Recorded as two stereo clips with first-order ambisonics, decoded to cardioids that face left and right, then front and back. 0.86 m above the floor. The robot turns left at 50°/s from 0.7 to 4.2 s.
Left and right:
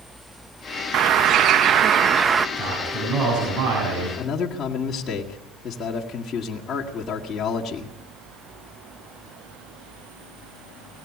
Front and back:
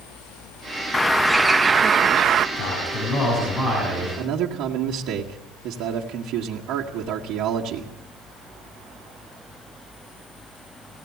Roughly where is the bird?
Right.